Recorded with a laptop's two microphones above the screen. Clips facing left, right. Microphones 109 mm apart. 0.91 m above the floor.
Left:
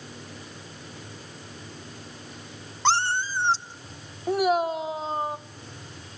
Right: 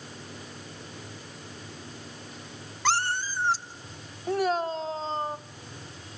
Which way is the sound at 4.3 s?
10° left (ahead or behind).